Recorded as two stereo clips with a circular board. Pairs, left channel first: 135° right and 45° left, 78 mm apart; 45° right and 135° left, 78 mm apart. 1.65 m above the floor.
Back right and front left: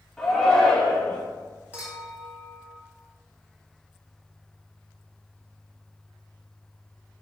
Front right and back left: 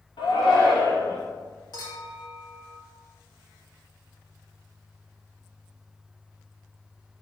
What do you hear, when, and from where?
0.2 s a shout: 50° right, 1.9 m
1.7 s a clink: 25° right, 2 m